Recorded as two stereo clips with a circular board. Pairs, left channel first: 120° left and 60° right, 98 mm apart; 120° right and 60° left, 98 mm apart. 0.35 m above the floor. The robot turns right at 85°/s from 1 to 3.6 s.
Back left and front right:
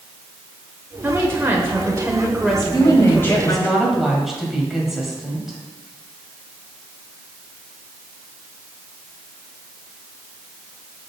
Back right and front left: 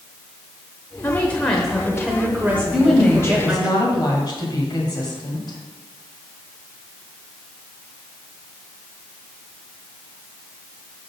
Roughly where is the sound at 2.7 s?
Behind left.